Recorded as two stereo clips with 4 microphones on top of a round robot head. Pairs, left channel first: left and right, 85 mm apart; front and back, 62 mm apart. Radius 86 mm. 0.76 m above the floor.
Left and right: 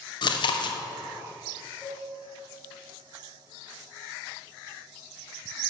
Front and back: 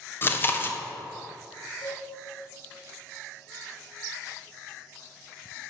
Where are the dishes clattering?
15° left, 3 m.